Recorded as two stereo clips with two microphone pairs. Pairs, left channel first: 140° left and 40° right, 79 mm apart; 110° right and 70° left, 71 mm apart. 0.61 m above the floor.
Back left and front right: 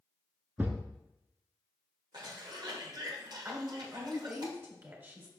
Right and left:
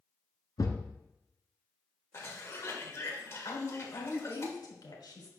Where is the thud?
105° right, 1.0 m.